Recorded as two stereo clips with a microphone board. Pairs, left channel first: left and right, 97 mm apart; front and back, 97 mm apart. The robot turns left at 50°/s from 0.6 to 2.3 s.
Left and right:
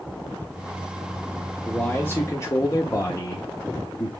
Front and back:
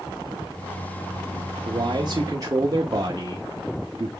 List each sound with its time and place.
1.6 s a man speaking: 170° left, 0.8 m; by 4.1 s 140° left, 0.8 m